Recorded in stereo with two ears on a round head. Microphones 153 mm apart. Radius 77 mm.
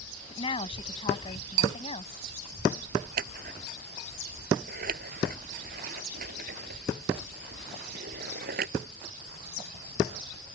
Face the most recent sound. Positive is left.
turn(degrees=-55)  # may be behind; listen again after turning